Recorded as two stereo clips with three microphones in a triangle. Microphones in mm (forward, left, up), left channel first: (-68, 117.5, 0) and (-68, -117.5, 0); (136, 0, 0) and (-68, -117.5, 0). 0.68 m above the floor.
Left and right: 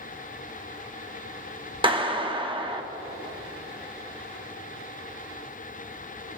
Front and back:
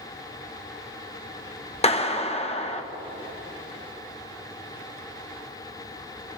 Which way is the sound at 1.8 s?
30° right.